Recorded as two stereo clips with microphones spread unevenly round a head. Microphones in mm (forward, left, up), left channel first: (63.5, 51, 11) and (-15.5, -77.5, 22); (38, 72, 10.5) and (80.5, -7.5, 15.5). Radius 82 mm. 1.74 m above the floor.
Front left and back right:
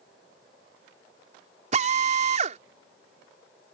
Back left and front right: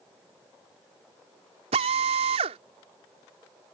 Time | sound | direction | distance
1.7 | a drill | 80° right | ?